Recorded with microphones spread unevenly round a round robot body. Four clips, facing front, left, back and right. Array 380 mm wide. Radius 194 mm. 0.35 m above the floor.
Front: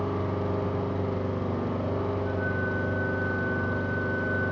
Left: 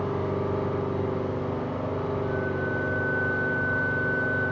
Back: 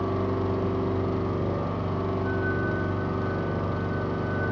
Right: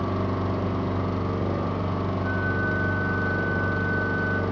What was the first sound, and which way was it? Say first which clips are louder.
An engine running: even, back 2 dB; 105° right.